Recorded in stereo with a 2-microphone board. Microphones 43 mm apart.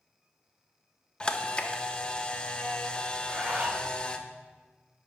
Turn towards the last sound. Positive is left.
turn(degrees=-35)  # may be behind; listen again after turning